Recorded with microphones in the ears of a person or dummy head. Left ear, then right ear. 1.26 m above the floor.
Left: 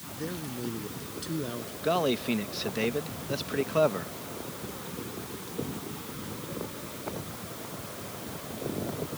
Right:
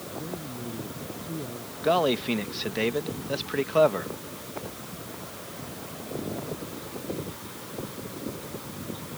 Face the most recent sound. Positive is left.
turn(degrees=-15)  # may be behind; listen again after turning